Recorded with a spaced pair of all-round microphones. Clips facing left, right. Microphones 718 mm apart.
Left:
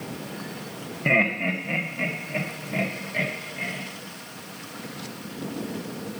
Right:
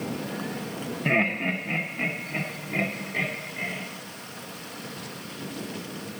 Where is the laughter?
5° left (ahead or behind), 0.9 m; by 3.8 s 10° left (ahead or behind), 3.5 m.